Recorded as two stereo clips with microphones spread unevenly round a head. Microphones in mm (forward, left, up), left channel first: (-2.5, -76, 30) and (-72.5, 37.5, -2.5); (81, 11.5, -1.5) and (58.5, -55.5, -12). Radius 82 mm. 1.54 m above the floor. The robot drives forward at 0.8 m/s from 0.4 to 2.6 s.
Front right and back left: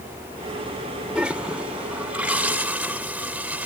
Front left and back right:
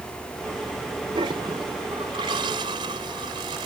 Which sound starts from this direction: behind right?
A toilet flushing, at 1.1 s.